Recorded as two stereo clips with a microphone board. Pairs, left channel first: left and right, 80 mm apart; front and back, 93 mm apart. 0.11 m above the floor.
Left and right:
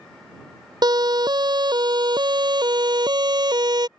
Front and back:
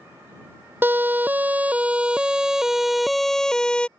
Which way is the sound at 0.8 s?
115° right.